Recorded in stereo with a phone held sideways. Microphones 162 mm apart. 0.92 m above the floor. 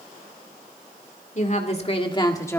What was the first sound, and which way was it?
A woman speaking, 50° left (ahead or behind).